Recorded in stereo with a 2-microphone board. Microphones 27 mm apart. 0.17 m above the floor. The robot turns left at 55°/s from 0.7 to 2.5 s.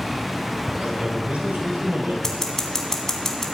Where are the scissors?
20° left (ahead or behind), 1.7 m; by 3.5 s 15° left (ahead or behind), 1.7 m.